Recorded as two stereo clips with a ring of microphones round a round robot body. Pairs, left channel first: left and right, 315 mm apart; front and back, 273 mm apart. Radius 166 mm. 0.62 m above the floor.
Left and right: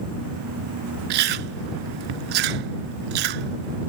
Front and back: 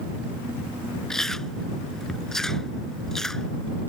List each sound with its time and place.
1.1 s chewing: 90° right